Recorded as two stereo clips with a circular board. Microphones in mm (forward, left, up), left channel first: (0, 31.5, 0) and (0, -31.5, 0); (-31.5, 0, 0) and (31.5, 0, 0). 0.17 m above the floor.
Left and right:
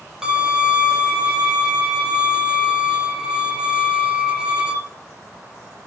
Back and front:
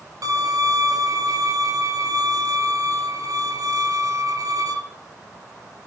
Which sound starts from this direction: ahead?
A violin, at 0.2 s.